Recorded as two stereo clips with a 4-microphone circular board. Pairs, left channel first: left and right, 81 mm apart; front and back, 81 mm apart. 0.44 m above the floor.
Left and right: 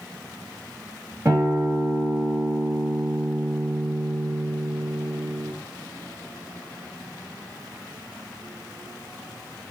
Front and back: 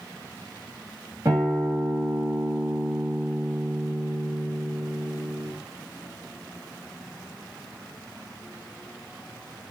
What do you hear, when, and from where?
1.2 s a guitar: 135° right, 2.5 m